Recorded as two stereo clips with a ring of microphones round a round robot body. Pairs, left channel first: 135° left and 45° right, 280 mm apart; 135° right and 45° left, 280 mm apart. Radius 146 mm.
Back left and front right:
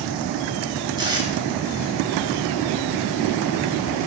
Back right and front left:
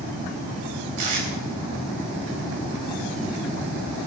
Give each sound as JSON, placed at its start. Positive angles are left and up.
{"t": 1.0, "sound": "tape being pulled", "azimuth_deg": 30, "distance_m": 4.0}